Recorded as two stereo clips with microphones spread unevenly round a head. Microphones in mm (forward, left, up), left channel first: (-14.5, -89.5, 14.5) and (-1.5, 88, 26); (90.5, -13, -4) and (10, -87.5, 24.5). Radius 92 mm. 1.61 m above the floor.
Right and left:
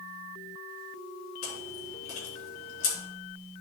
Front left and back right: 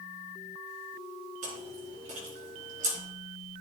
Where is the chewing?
135° right, 3.5 m.